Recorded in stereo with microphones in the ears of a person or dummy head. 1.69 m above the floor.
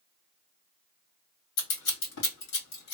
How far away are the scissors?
About 2 m.